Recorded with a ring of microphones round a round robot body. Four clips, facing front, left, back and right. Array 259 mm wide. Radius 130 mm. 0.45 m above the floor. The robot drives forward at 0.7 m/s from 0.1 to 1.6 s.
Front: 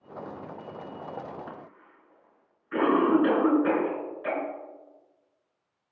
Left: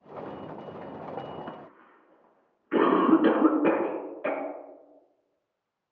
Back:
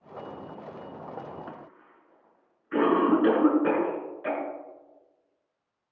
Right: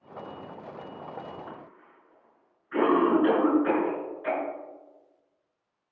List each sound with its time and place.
1.5 s a cough: 90° left, 5.5 m